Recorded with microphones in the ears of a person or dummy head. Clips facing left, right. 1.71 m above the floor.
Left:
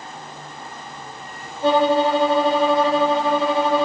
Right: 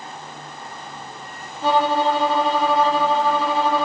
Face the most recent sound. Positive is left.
turn(degrees=-70)  # may be behind; listen again after turning